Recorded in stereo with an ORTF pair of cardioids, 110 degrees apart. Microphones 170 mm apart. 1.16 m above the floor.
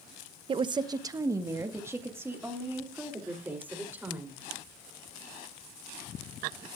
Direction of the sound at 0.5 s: 30° right.